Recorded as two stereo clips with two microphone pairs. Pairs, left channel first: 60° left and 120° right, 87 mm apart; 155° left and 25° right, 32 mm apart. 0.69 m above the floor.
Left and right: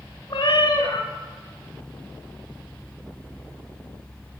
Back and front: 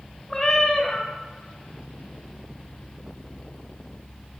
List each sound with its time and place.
0.3 s a cat meowing: 80° left, 1.5 m